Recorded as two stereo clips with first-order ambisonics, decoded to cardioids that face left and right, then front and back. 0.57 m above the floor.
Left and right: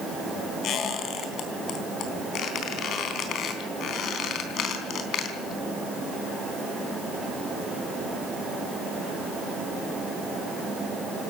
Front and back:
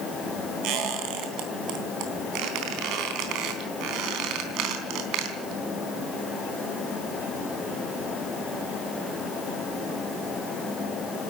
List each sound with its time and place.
0.6 s a squeak: 145° left, 3.5 m